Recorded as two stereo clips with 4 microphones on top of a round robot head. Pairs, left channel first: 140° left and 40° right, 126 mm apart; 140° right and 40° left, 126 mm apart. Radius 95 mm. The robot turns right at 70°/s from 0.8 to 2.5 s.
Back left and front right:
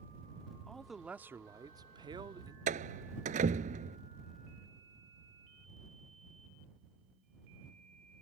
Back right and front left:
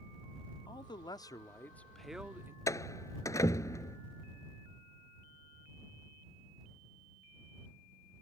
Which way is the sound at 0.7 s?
135° right.